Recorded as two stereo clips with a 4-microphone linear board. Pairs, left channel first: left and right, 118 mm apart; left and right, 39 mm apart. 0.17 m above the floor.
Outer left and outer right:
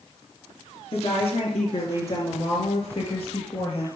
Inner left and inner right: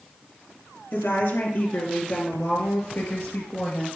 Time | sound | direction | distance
0.9 | a woman speaking | 60° left (ahead or behind) | 3 m